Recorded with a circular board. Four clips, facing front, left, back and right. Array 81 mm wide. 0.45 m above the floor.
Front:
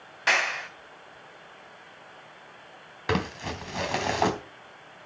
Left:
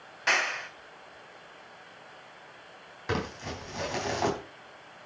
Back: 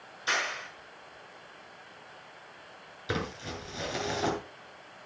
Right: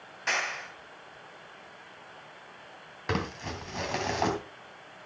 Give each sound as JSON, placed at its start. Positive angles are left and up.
{"t": 0.3, "sound": "a clap", "azimuth_deg": 15, "distance_m": 3.0}
{"t": 3.1, "sound": "crumpling", "azimuth_deg": -10, "distance_m": 3.0}